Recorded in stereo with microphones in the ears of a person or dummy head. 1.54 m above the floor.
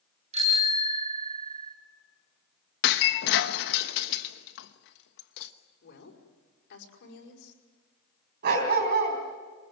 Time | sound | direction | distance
0.3 | a bicycle bell | 25° right (ahead or behind) | 2.5 m
2.8 | breaking glass | 60° left (ahead or behind) | 1.1 m
5.8 | a woman speaking | 55° left (ahead or behind) | 5.5 m
8.4 | a dog barking | 45° right (ahead or behind) | 4 m